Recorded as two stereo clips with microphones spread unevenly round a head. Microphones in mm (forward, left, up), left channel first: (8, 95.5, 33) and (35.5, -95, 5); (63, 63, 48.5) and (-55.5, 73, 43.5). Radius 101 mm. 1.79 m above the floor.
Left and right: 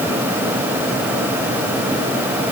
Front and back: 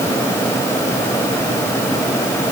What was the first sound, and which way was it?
Only background noise.